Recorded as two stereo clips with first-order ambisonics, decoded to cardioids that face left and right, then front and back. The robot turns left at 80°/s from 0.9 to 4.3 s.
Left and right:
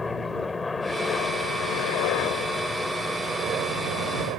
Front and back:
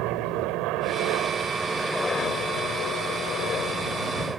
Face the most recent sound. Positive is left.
turn(degrees=-105)